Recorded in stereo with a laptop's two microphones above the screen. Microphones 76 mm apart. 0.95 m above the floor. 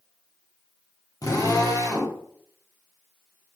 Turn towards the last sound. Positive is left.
turn(degrees=55)  # may be behind; listen again after turning